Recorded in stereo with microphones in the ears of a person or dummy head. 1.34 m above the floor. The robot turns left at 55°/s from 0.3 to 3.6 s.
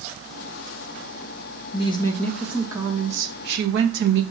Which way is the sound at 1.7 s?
35° left.